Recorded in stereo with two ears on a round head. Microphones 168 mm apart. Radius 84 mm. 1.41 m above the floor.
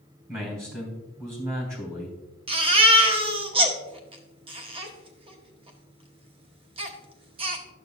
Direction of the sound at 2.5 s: 30° right (ahead or behind).